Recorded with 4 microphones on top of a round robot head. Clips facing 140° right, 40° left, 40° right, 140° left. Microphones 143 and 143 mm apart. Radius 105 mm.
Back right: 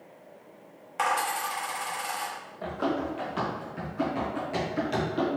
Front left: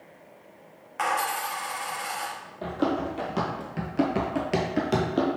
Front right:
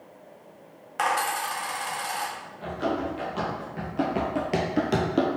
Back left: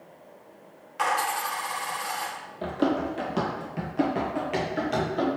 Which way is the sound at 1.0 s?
80° right.